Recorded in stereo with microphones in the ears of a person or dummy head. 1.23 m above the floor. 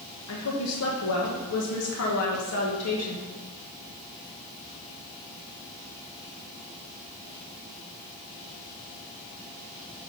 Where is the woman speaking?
75° left (ahead or behind), 1.3 m.